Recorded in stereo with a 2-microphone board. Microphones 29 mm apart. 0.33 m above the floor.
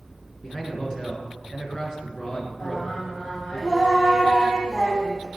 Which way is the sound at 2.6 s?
25° left (ahead or behind).